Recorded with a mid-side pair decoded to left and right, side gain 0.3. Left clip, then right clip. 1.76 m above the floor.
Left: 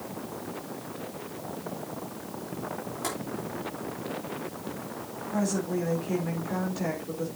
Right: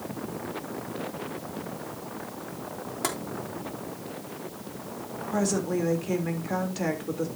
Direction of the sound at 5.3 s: 65° right.